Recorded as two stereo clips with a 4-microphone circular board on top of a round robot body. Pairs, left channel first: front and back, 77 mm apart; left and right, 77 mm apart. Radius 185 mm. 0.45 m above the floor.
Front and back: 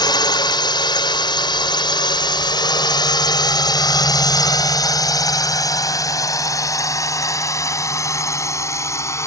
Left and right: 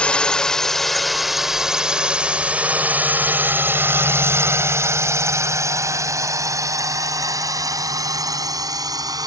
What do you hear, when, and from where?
0.0 s a drone: 15° left; by 9.3 s 55° right